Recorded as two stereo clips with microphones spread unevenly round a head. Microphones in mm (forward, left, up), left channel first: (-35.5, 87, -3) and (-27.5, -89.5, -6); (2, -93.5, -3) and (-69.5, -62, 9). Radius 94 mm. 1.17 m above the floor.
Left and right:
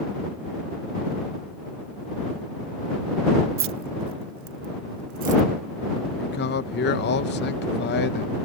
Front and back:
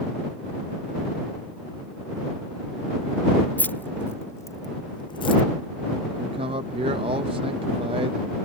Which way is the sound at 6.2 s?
120° left.